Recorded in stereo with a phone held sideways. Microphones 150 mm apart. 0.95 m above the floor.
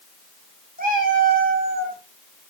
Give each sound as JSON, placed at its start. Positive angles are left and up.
{"t": 0.8, "sound": "a cat meowing", "side_deg": -70, "distance_m": 3.0}